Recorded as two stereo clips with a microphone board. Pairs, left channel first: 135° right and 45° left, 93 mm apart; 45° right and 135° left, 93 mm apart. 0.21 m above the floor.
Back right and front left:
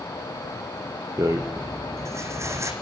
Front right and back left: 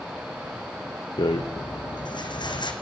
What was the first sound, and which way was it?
A rattle, 10° right.